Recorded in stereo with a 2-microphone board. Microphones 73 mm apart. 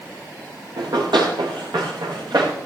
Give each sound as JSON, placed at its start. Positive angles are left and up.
{"t": 0.8, "sound": "running footsteps", "side_deg": -85, "distance_m": 6.0}